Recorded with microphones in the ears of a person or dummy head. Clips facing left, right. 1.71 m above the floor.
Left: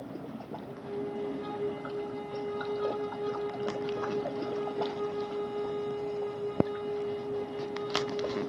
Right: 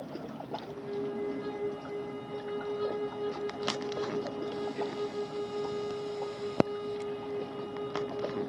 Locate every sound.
0.6 s a flute: 45° right (ahead or behind), 3 m